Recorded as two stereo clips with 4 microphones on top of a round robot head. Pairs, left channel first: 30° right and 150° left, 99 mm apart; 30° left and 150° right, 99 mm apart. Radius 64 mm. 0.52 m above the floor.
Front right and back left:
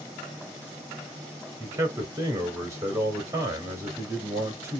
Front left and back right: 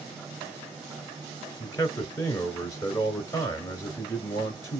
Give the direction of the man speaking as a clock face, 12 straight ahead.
9 o'clock.